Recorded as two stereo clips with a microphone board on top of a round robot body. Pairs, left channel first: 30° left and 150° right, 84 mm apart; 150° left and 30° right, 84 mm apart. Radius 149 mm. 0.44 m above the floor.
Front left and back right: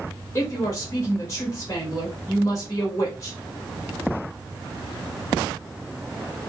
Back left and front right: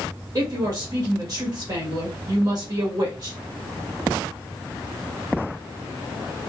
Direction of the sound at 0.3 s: 15° right.